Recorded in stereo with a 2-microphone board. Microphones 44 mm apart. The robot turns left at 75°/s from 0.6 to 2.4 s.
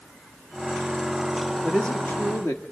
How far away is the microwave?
I don't hear a microwave.